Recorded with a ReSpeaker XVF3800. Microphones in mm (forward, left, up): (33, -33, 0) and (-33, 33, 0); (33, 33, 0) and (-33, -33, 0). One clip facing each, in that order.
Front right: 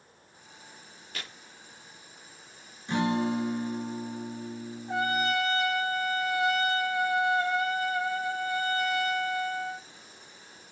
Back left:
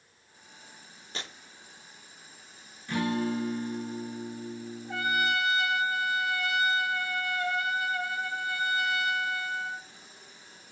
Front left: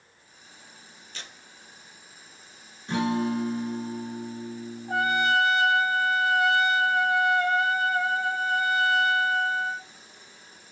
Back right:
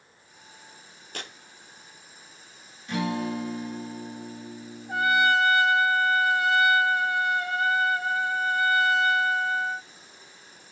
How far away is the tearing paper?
About 0.5 m.